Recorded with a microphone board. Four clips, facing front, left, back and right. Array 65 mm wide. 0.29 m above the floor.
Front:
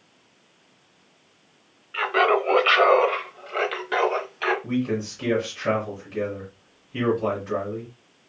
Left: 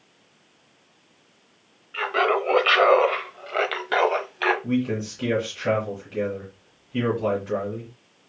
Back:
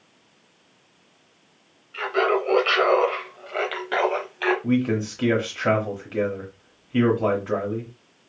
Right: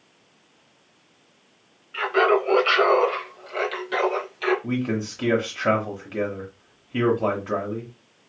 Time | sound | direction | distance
1.9 | laughter | 5° left | 1.0 m
4.6 | a man speaking | 140° right | 1.2 m